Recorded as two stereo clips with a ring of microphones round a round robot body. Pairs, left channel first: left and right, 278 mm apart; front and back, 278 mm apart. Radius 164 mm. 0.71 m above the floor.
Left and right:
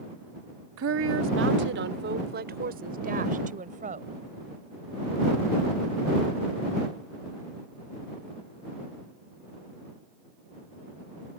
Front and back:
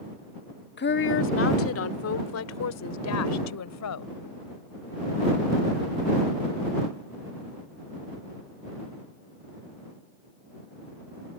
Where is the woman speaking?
50° right; by 4.2 s 20° right.